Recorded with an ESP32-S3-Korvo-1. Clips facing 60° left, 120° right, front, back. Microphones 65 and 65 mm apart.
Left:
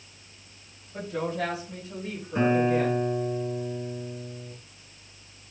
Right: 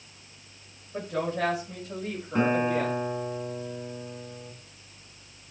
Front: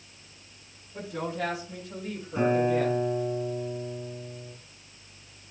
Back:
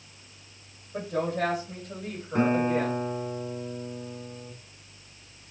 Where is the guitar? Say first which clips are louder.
Left 2 dB, even; 150° right, 2.5 m.